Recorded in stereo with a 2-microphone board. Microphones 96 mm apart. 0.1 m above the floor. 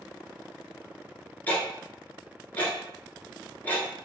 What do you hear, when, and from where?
1.5 s ticking: 20° left (ahead or behind), 1.1 m